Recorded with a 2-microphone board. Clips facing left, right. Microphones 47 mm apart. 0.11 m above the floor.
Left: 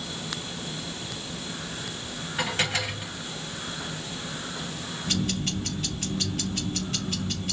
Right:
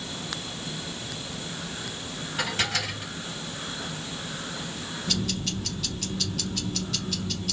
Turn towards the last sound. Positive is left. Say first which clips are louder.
# left 2 dB
turn(degrees=30)  # may be behind; listen again after turning